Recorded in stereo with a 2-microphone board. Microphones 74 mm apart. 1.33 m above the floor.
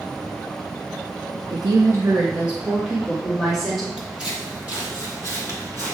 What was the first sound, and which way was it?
A woman speaking, 75° right (ahead or behind).